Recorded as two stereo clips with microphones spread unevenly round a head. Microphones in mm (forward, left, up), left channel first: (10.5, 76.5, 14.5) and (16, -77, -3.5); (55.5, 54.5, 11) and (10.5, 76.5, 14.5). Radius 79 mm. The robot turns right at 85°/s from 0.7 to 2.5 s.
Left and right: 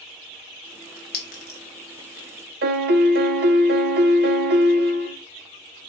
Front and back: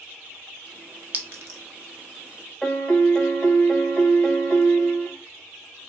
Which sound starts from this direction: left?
A clink, at 1.1 s.